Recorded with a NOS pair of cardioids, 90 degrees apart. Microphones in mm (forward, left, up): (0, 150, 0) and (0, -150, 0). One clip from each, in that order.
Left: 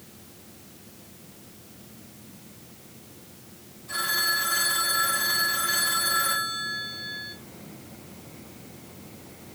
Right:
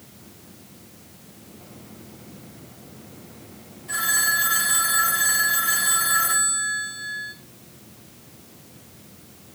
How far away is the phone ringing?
About 3 m.